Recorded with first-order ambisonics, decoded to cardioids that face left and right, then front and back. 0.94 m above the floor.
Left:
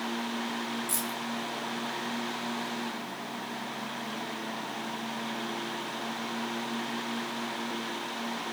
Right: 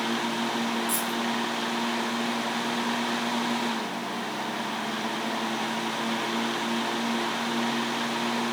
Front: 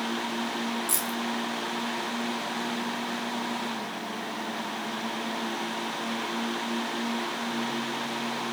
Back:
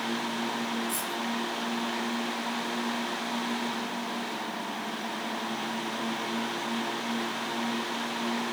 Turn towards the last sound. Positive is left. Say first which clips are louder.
# right 6 dB, front 1 dB
turn(degrees=-5)